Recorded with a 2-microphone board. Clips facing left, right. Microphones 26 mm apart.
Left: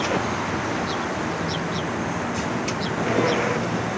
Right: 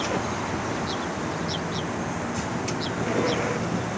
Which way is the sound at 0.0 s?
20° left (ahead or behind).